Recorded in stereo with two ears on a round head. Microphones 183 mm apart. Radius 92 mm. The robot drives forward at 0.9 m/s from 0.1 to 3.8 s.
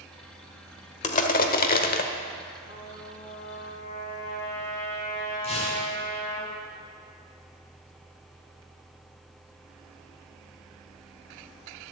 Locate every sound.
1.0 s crushing: 35° left (ahead or behind), 1.2 m; by 2.1 s 45° left (ahead or behind), 1.0 m
2.6 s a trumpet: 55° left (ahead or behind), 3.5 m; by 6.4 s 45° left (ahead or behind), 4 m
5.4 s tearing paper: 30° left (ahead or behind), 4 m